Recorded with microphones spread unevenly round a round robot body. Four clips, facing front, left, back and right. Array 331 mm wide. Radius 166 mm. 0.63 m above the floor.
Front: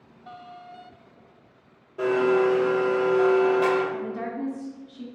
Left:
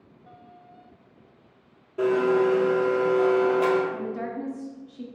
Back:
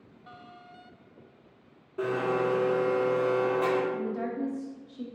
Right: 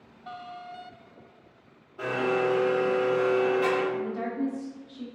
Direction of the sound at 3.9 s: 75° left.